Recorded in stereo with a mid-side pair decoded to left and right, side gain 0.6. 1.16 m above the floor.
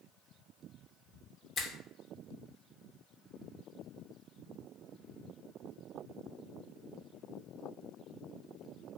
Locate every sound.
1.6 s a finger snap: 40° left, 0.6 m